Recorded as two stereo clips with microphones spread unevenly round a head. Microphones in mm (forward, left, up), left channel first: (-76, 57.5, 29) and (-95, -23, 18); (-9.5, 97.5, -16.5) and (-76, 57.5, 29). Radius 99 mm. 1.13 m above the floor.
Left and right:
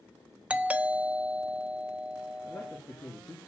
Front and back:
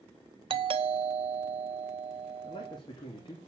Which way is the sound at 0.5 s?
140° right.